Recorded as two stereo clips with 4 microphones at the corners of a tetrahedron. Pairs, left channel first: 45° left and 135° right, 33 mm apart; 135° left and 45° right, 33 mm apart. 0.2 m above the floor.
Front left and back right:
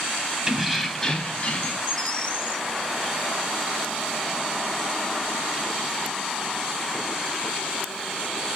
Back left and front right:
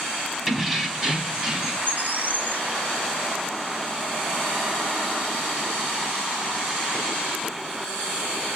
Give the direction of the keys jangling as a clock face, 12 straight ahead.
4 o'clock.